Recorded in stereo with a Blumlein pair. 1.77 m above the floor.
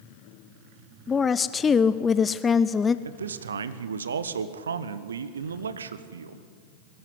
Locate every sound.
1.1 s a woman speaking: 20° left, 0.5 m
3.0 s a man speaking: 70° right, 1.0 m